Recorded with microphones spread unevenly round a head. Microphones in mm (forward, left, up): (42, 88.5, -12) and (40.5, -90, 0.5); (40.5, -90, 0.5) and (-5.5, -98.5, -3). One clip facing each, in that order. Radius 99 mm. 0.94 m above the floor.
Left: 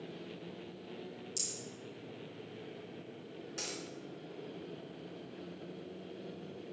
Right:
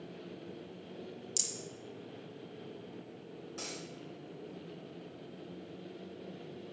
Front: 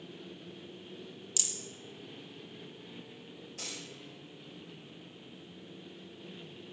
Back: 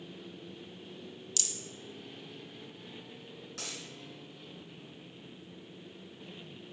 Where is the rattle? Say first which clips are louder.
Right 1 dB, even; 70° right, 1.6 m.